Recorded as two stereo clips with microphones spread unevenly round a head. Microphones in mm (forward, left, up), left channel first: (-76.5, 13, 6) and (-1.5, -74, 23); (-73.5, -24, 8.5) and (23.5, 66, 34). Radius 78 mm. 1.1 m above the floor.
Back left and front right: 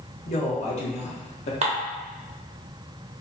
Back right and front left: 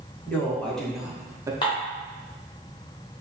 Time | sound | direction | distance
0.3 | a woman speaking | 150° left | 1.0 m
1.6 | dishes clattering | 70° right | 0.6 m